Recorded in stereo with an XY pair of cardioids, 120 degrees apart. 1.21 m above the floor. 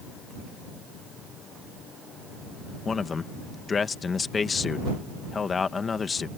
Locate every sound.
2.9 s a man speaking: 35° left